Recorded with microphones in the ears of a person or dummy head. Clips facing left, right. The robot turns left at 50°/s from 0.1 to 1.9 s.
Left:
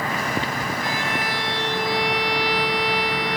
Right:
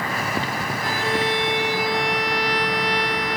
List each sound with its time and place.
0.8 s a violin: 130° right, 0.8 m; by 3.4 s straight behind, 0.8 m